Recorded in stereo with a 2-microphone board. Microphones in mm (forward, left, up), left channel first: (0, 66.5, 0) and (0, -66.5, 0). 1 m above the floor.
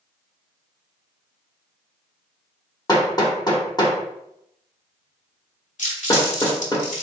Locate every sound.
2.9 s hammering: 30° left (ahead or behind), 1.1 m
5.8 s crumpling: 70° left (ahead or behind), 2.0 m